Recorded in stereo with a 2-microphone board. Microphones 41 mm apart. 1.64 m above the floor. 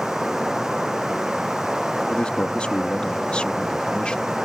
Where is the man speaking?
25° left (ahead or behind).